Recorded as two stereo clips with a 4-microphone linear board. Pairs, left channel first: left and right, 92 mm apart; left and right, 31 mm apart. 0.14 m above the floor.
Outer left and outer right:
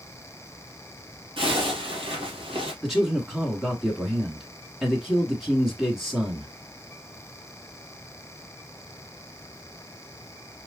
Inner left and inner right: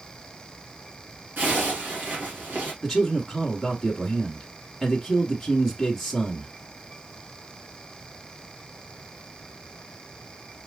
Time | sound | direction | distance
1.4 | a zipper | 70° right (ahead or behind) | 3 m
2.8 | a man speaking | 5° right (ahead or behind) | 1.1 m